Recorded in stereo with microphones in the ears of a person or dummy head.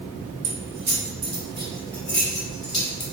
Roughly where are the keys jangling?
Right.